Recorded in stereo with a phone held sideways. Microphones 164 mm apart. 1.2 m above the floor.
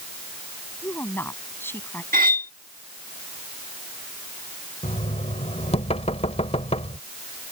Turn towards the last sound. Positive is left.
turn(degrees=40)  # may be behind; listen again after turning